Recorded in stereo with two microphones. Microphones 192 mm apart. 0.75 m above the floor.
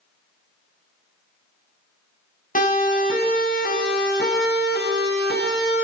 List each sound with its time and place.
2.5 s a siren: 45° left (ahead or behind), 5.5 m; by 5.8 s 65° left (ahead or behind), 6.5 m